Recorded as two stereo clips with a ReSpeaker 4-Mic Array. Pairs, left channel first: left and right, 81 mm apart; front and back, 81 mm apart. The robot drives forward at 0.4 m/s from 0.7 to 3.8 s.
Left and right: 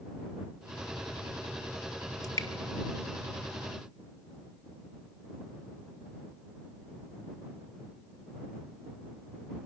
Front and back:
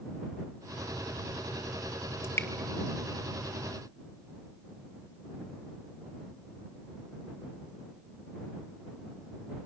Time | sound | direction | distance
2.2 | dripping | 50° left | 1.9 m